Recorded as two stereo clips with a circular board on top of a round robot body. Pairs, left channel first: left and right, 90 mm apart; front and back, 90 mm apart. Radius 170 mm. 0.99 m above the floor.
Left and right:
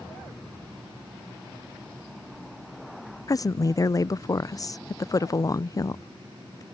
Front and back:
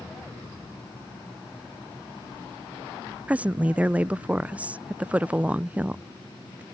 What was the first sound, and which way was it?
A woman speaking, 110° left.